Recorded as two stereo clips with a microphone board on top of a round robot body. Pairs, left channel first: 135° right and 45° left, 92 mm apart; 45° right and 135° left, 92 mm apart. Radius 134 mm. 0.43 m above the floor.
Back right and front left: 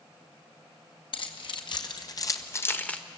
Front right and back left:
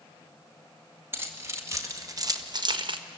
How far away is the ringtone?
I don't hear a ringtone.